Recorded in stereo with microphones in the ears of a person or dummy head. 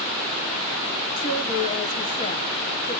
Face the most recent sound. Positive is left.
turn(degrees=30)  # may be behind; listen again after turning